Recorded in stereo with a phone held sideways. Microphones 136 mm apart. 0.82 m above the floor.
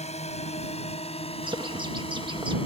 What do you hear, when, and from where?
0.0 s a drone: 55° left (ahead or behind); by 2.7 s 45° left (ahead or behind)
1.4 s a bird: 35° right (ahead or behind)